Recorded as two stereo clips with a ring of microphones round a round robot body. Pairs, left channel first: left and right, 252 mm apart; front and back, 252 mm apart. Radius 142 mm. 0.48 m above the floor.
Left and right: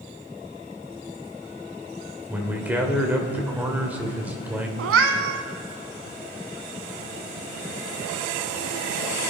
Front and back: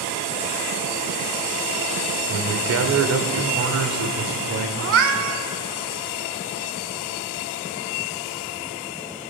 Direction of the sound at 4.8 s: 135° right.